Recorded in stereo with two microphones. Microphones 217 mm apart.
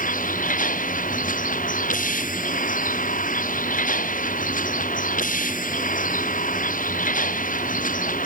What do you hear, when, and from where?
0.0 s a vehicle: 40° left (ahead or behind)